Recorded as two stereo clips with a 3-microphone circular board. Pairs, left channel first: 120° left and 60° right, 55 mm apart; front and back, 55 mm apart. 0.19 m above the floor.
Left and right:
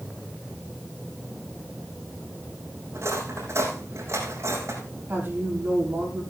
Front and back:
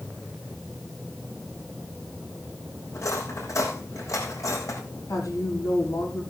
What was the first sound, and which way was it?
Cutlery clinking, 20° right.